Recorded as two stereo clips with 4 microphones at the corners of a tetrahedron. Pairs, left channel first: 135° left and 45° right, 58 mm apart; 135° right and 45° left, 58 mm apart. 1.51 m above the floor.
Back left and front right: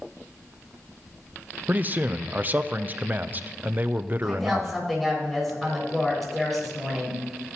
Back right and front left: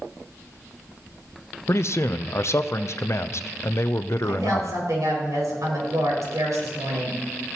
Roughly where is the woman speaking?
Ahead left.